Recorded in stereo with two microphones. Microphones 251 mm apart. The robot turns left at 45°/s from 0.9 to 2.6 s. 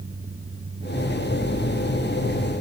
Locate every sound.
Only background noise.